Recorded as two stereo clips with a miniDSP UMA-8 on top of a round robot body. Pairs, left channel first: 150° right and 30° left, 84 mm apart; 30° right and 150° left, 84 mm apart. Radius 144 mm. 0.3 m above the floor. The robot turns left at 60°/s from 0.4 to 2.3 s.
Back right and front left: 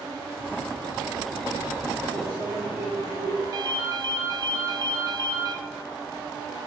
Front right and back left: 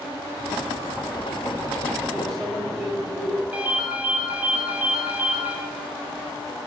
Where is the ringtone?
80° left, 0.7 m.